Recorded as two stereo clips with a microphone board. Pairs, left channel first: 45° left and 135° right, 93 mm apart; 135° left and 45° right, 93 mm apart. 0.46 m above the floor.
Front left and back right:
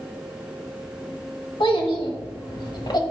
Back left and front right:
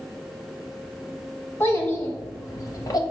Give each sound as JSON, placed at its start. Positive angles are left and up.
{"t": 1.6, "sound": "a child speaking", "azimuth_deg": 70, "distance_m": 1.7}